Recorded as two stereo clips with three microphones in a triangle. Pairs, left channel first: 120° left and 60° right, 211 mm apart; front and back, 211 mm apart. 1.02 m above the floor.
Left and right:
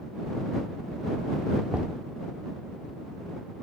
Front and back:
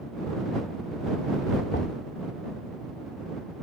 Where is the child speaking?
I don't hear a child speaking.